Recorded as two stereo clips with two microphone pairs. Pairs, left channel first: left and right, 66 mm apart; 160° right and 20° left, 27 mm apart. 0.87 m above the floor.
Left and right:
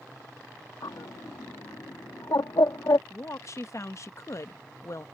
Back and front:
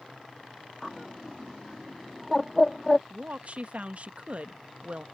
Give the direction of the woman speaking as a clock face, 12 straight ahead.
10 o'clock.